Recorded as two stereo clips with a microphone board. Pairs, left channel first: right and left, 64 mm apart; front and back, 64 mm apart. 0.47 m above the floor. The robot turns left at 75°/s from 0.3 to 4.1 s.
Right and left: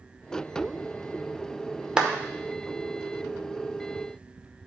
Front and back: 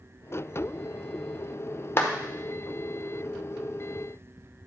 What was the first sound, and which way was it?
A clap, 15° left.